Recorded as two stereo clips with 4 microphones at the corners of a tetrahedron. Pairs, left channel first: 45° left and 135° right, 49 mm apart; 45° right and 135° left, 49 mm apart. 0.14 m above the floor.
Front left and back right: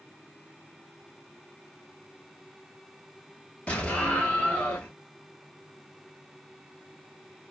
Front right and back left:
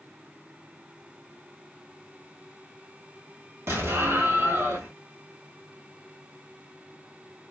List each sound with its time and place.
3.7 s an explosion: 105° left, 1.5 m